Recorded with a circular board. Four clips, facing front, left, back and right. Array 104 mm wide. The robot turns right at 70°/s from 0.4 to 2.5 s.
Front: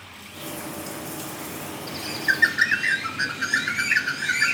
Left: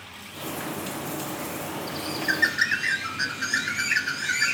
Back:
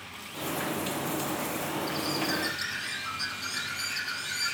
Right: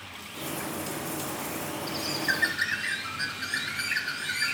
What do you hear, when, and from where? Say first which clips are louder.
1.9 s a bird: left 2 dB, front 8 dB; 30° right, 0.8 m; by 4.5 s 15° left, 0.8 m